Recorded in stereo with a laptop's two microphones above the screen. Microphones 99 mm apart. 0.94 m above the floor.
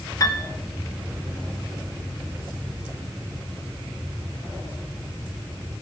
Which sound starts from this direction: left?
A piano, at 0.2 s.